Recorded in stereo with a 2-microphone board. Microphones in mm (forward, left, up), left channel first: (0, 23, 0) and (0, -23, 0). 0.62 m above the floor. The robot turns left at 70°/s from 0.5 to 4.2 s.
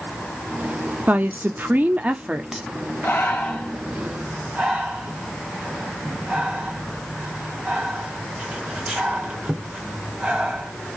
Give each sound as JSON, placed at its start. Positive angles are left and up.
{"t": 1.1, "sound": "a woman speaking", "azimuth_deg": -60, "distance_m": 0.7}
{"t": 3.0, "sound": "breathing", "side_deg": 55, "distance_m": 1.6}